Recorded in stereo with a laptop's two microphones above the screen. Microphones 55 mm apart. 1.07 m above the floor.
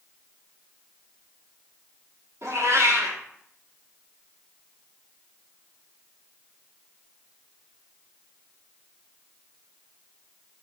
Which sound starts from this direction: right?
A cat meowing, at 2.4 s.